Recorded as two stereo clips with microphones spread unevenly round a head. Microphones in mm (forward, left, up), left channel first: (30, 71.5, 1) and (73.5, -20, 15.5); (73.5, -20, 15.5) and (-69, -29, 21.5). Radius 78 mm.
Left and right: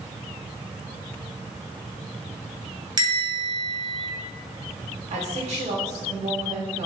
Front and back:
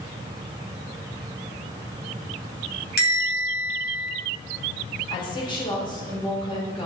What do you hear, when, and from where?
3.0 s a bell: 20° right, 3 m
5.1 s a woman speaking: 55° right, 2.5 m